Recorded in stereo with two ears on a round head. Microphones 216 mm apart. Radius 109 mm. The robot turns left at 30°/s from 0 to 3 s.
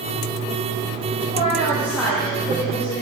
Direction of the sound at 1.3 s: 155° right.